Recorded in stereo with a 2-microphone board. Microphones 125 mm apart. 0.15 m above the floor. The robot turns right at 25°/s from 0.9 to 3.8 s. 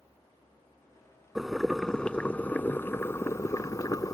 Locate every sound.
1.4 s boiling: 5° right; by 4.1 s 55° left